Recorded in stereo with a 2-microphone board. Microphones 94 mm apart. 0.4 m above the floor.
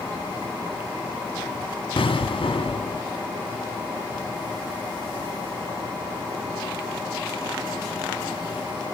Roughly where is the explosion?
Left.